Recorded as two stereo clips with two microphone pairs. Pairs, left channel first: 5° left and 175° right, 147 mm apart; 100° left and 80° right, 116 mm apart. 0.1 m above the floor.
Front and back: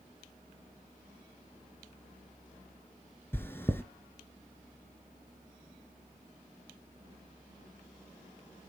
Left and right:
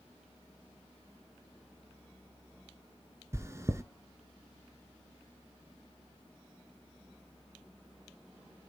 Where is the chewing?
55° right, 0.8 m.